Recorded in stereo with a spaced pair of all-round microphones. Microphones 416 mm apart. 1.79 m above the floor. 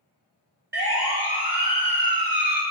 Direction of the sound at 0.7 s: 75° right (ahead or behind).